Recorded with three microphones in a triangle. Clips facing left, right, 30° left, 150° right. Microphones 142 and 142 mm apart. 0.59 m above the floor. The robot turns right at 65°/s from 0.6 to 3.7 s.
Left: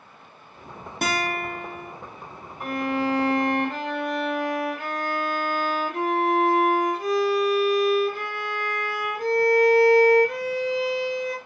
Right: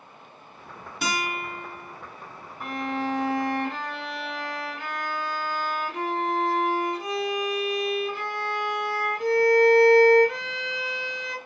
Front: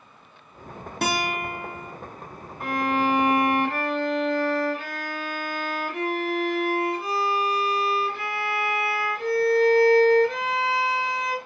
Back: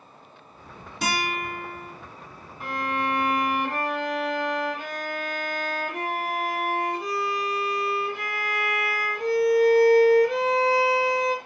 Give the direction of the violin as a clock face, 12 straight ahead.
10 o'clock.